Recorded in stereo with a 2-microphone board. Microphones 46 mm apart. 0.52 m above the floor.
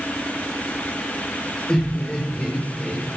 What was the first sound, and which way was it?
Laughter, 15° left (ahead or behind).